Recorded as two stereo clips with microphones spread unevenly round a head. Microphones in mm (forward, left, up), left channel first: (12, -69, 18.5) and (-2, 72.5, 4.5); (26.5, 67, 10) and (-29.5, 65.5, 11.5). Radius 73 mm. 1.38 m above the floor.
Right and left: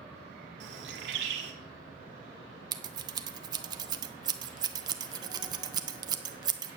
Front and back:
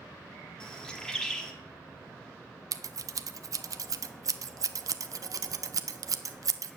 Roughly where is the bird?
Left.